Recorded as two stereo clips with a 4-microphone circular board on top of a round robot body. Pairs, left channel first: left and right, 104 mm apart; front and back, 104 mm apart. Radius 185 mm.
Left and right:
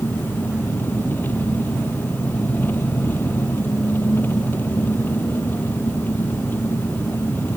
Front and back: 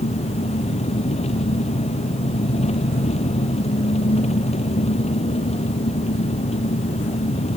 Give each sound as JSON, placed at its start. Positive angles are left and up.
{"t": 0.0, "sound": "an engine running", "azimuth_deg": 15}